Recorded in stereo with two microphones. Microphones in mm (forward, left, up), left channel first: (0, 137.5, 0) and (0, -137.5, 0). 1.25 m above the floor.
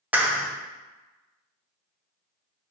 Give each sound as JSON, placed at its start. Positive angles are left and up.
{"t": 0.1, "sound": "a clap", "side_deg": -5, "distance_m": 0.8}